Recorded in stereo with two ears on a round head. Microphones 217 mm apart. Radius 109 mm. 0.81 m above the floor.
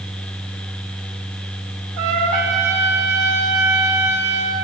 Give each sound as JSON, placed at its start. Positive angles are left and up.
{"t": 2.0, "sound": "a trumpet", "side_deg": -75, "distance_m": 1.0}